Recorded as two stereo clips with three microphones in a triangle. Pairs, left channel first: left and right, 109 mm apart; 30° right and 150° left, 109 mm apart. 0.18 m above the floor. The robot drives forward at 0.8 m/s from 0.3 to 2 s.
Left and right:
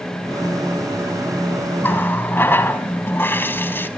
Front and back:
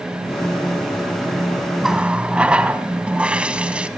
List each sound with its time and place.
1.8 s a running tap: 65° left, 0.8 m; by 3.9 s 95° left, 0.8 m